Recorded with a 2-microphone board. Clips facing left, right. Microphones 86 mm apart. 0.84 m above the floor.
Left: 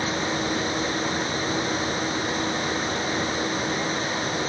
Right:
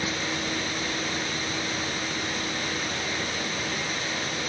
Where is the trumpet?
No trumpet in this recording.